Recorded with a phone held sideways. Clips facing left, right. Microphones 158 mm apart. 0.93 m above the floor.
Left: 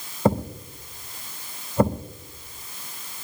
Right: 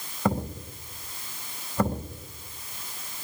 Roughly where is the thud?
Left.